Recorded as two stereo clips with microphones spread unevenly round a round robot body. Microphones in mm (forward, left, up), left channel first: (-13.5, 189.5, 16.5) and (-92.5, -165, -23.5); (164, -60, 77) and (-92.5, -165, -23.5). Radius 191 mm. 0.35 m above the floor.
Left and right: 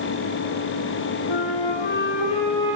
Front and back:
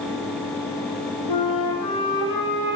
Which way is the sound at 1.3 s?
45° left.